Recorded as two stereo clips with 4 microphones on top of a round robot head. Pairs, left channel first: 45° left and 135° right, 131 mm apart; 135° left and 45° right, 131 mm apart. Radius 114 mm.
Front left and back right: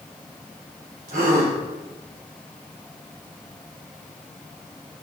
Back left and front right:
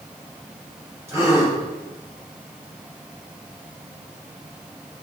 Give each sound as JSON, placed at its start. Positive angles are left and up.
{"t": 1.1, "sound": "a gasp", "azimuth_deg": -115, "distance_m": 2.5}